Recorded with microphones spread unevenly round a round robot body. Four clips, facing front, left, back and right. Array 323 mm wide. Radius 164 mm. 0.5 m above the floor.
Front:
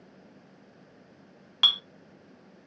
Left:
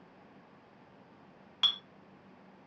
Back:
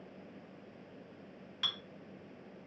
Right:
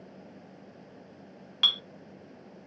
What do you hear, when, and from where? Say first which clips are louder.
1.6 s a clink: right 4 dB, front 11 dB; 20° right, 0.5 m